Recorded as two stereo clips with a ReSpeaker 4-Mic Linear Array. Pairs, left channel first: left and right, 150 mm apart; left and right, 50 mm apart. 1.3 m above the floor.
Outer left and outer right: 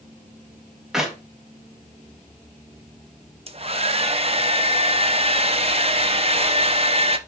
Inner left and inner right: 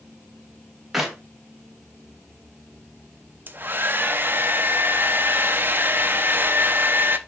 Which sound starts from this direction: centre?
A clap, at 0.9 s.